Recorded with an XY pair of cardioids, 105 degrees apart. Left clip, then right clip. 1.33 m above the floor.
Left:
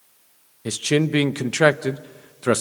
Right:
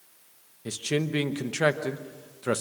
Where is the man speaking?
50° left, 1.0 m.